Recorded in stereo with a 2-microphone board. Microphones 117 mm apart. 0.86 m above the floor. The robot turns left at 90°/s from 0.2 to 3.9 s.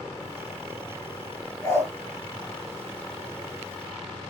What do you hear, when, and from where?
1.6 s a dog barking: 30° left (ahead or behind), 5.5 m; by 1.9 s 5° left (ahead or behind), 5.5 m